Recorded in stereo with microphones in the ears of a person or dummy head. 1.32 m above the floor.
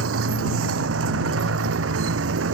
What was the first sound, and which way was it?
A motorcycle, 90° right.